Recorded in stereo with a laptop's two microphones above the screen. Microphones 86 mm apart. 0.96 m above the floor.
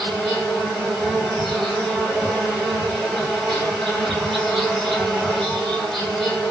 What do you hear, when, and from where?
0.0 s an insect: 5° left (ahead or behind), 1.0 m